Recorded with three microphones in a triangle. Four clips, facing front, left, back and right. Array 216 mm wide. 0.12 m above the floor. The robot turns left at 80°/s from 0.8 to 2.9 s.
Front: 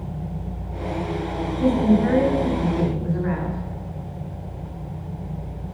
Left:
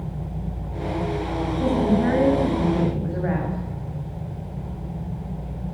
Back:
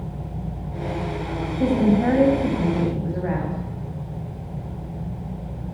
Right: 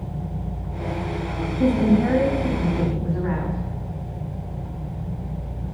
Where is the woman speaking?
130° right, 7 m; by 3.6 s 125° left, 7 m.